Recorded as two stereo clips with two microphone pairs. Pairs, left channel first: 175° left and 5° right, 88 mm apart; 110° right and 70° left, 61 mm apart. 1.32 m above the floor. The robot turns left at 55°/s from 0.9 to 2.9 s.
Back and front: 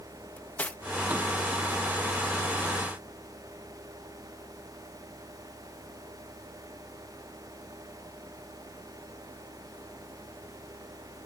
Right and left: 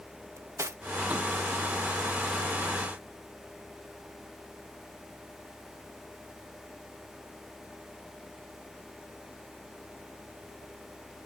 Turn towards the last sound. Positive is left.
turn(degrees=-5)